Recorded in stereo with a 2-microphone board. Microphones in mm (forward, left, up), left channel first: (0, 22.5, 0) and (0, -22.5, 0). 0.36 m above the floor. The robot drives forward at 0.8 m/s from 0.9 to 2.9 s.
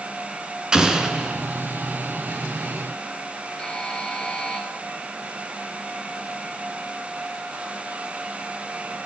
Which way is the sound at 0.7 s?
15° right (ahead or behind).